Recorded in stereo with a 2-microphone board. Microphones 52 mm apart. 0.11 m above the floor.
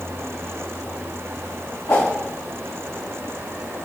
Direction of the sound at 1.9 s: 75° left (ahead or behind).